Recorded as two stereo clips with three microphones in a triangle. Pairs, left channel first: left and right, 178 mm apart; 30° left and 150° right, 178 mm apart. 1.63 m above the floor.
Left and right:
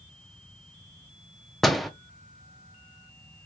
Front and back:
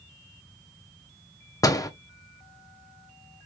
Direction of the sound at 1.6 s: Straight ahead.